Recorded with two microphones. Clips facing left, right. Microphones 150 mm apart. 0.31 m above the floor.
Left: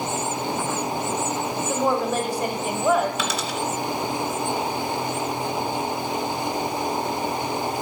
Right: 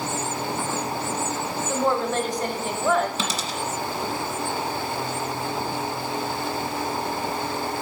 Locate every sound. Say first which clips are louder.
1.7 s a woman speaking: even; 10° left (ahead or behind), 1.2 m
3.2 s a dropped coin: left 2 dB; 35° right (ahead or behind), 1.9 m